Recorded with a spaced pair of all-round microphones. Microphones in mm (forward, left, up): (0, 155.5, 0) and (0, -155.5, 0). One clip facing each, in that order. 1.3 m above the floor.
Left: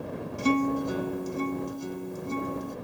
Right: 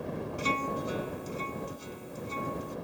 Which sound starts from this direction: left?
A guitar, at 0.4 s.